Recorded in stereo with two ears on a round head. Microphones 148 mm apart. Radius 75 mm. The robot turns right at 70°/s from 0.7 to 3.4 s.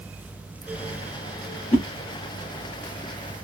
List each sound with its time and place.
1.7 s a whoosh: 35° left (ahead or behind), 1.0 m; by 1.9 s 30° left (ahead or behind), 1.0 m